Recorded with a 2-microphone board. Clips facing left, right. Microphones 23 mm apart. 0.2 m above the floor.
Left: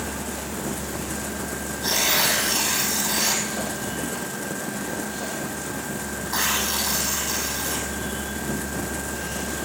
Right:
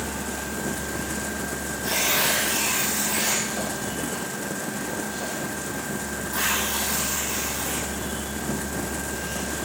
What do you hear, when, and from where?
1.8 s tearing paper: 50° left (ahead or behind), 5.5 m